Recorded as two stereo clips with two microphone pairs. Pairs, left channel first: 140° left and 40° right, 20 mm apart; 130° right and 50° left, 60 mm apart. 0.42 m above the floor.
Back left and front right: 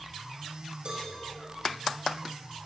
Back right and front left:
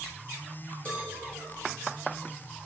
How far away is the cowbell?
About 4 m.